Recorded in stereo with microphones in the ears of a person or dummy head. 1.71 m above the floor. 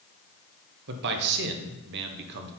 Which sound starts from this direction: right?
A man speaking, at 0.9 s.